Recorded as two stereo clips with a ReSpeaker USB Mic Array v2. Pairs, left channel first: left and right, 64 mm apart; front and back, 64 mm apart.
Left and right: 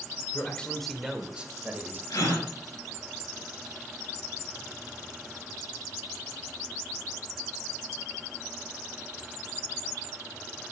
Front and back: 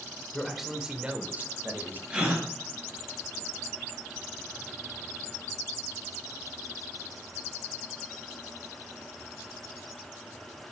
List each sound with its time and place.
0.3 s a man speaking: 80° left, 1.3 m; by 2.0 s 135° right, 1.8 m
2.1 s a gasp: 110° left, 3 m